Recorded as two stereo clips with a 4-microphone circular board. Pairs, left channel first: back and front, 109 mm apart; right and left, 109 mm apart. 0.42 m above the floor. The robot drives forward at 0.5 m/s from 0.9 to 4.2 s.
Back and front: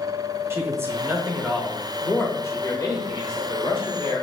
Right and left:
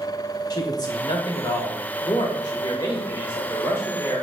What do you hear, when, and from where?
0.5 s a man speaking: 55° right, 1.0 m; by 4.2 s 155° right, 1.6 m